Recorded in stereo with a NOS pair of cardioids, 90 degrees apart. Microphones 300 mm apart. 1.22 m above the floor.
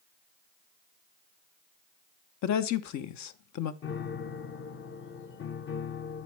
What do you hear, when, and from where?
2.4 s a woman speaking: 65° left, 0.9 m
3.8 s a piano: 40° left, 0.8 m